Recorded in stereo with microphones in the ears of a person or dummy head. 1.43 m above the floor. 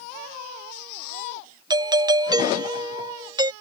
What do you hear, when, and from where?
1.7 s a doorbell: 20° right (ahead or behind)